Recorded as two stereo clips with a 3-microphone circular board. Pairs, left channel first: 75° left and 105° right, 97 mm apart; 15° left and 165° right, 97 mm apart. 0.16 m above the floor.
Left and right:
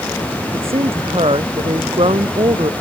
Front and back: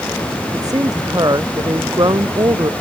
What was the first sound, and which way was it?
A woman speaking, 115° right.